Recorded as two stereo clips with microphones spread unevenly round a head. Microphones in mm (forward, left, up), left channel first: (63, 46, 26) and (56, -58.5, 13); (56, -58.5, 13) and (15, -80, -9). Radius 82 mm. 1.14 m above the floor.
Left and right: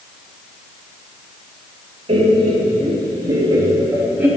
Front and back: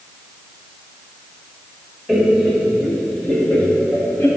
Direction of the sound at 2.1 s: 65° right.